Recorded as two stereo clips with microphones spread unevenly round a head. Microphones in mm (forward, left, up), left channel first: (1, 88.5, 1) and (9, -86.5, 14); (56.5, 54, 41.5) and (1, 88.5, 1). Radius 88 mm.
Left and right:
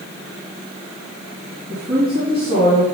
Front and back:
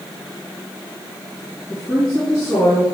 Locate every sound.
1.7 s a woman speaking: 50° right, 3.5 m